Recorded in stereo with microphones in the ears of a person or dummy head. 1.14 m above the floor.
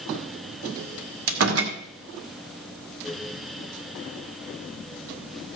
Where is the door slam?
80° right, 1.9 m.